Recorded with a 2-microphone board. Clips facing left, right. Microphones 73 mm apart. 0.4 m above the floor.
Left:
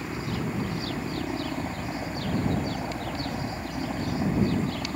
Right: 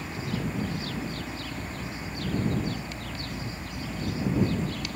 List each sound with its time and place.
0.0 s a helicopter: 40° left (ahead or behind); by 5.0 s 35° left (ahead or behind)